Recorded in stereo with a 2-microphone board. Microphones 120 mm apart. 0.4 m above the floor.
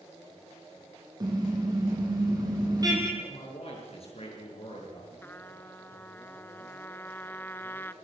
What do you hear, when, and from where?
1.2 s a car horn: 35° right (ahead or behind), 6 m
3.2 s a man speaking: 55° left (ahead or behind), 8.5 m
5.2 s a trumpet: 20° left (ahead or behind), 0.9 m